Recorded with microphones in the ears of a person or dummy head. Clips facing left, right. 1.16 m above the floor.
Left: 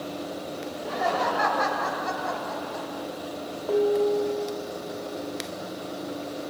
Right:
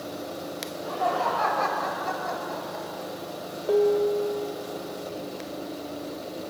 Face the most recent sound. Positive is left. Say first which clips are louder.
# right 1 dB
turn(degrees=-15)  # may be behind; listen again after turning